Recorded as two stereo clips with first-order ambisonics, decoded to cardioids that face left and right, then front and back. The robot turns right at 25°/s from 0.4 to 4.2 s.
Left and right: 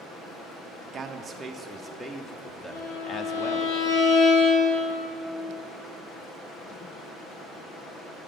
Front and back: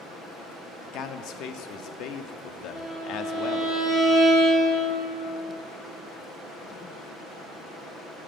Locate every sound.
0.9 s a man speaking: 30° right, 0.6 m; by 3.7 s 40° left, 0.6 m
2.7 s a violin: 70° left, 3 m; by 5.2 s 110° left, 3 m